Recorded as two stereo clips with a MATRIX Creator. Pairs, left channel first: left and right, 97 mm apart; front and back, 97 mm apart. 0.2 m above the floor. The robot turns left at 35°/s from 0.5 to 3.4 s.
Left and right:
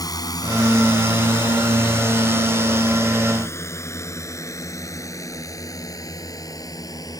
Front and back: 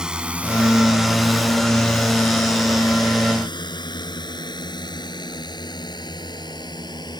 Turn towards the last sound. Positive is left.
turn(degrees=40)